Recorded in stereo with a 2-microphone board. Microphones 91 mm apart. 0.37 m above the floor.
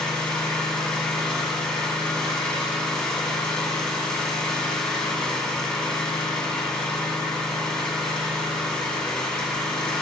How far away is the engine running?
About 2.5 m.